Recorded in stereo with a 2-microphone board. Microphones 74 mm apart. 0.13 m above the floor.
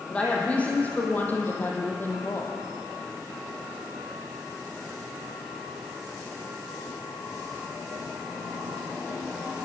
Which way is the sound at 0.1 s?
15° left (ahead or behind).